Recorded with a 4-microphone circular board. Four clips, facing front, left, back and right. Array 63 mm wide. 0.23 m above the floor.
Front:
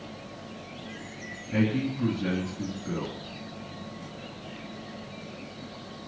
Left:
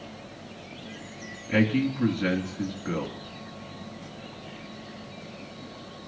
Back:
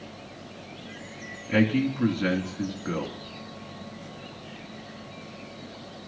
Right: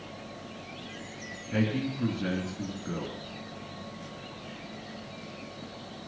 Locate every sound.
1.5 s a man speaking: 150° left, 2.5 m